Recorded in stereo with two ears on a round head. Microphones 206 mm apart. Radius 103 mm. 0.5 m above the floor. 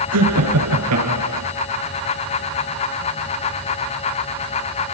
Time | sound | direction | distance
0.1 | laughter | 80° right | 6 m